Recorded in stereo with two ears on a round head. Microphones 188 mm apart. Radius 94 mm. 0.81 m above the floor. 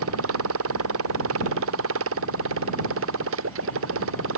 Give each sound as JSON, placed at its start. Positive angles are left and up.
{"t": 0.0, "sound": "a motorcycle", "side_deg": -75}